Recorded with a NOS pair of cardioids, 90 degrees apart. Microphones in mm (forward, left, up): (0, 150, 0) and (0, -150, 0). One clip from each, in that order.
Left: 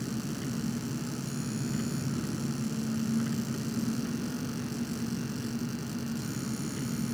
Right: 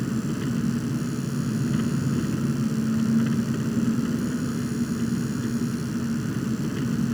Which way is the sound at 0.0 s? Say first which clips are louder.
Right 7 dB; 60° right.